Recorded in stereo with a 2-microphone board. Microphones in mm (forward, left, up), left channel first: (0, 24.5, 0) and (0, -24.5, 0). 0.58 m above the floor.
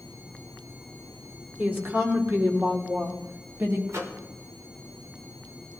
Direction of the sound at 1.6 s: 40° right (ahead or behind).